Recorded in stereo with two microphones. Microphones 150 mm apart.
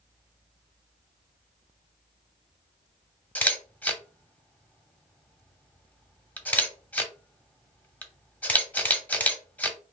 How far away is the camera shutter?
About 0.8 m.